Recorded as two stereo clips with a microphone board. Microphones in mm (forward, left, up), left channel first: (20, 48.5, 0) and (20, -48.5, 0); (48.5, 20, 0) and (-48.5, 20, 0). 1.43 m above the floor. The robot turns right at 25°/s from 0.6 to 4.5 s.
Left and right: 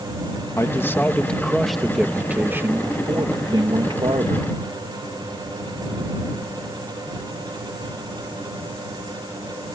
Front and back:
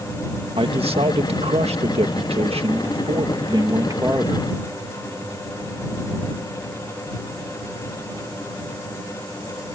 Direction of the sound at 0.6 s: 150° left.